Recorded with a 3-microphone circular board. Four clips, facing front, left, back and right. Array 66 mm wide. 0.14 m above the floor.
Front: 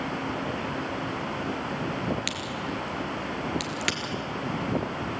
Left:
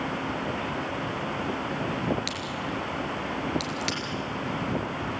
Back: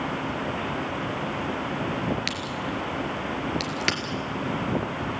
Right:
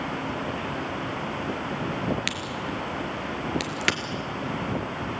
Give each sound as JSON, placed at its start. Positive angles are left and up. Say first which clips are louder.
{"t": 2.3, "sound": "a crack", "louder": "right 1 dB, back 2 dB", "azimuth_deg": -115, "distance_m": 2.0}